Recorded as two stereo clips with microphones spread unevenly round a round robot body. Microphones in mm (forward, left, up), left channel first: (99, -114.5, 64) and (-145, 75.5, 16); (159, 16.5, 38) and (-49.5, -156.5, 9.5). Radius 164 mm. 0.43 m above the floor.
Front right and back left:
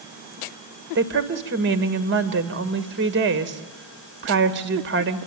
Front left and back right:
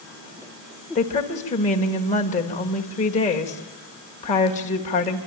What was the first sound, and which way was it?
A woman speaking, 105° left.